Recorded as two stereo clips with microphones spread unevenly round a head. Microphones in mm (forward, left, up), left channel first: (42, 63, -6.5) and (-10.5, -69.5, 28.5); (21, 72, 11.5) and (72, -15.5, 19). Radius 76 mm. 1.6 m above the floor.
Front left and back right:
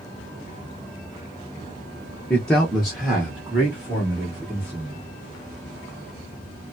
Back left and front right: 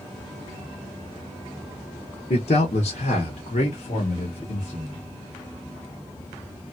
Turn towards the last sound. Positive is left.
turn(degrees=175)